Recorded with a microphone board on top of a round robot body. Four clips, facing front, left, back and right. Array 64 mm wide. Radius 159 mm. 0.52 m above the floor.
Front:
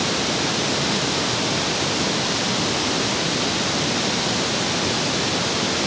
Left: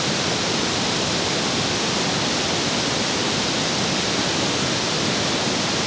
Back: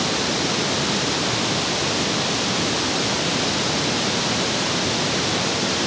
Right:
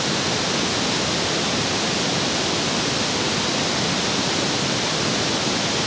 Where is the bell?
No bell in this recording.